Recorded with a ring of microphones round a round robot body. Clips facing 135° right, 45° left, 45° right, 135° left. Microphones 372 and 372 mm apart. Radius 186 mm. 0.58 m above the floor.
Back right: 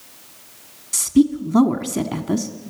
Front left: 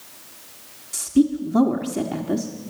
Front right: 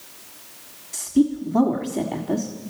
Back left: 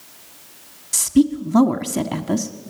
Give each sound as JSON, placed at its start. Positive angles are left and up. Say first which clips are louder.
{"t": 0.9, "sound": "a woman speaking", "louder": "back right 2 dB, back left 3 dB", "azimuth_deg": 165, "distance_m": 1.4}